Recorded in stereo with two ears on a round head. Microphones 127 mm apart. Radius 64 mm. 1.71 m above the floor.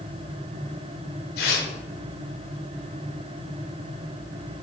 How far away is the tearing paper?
About 4.5 m.